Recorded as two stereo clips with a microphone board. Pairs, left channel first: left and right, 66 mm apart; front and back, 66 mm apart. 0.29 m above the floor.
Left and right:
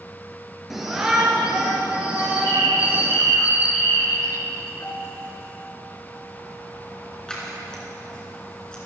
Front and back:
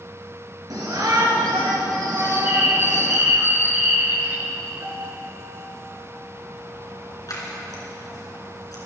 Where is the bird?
125° left, 1.8 m.